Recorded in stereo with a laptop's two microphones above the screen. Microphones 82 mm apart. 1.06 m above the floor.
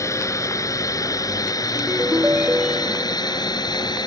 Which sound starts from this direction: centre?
A ringtone, at 1.8 s.